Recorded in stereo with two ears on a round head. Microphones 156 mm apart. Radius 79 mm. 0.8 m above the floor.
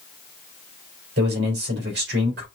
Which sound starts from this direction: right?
A man speaking, at 1.2 s.